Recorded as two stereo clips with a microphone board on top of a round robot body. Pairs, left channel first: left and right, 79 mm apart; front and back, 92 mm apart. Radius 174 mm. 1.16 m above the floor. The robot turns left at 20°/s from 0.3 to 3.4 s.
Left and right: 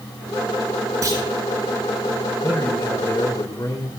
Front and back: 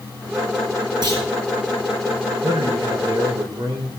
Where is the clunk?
140° right, 9.5 m; by 1.2 s 145° right, 9.5 m.